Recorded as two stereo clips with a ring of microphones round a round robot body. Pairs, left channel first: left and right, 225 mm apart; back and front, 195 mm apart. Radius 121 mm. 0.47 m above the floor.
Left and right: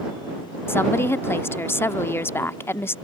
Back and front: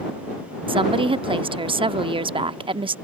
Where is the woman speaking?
20° left.